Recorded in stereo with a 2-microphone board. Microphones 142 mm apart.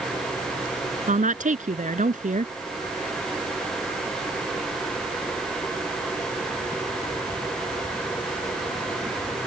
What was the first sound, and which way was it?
A woman speaking, 60° right (ahead or behind).